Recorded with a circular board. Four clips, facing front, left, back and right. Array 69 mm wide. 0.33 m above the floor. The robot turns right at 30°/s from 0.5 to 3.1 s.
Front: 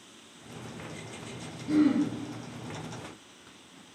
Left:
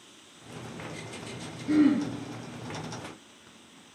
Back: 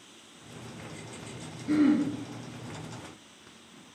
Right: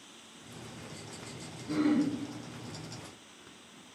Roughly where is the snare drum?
No snare drum in this recording.